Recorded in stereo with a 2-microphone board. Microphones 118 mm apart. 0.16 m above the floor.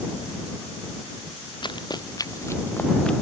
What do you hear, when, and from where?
1.6 s running footsteps: 45° left (ahead or behind); by 3.1 s 10° left (ahead or behind)